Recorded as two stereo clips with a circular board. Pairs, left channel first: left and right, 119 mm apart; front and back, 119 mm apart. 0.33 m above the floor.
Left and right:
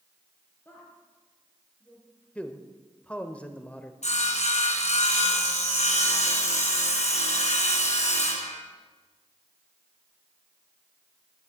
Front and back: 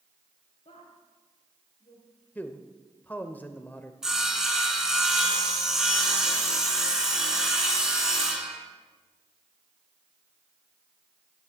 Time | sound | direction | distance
0.7 | a woman speaking | 20° left | 5.5 m
2.4 | a man speaking | 40° left | 0.8 m
4.0 | sawing | 95° left | 2.5 m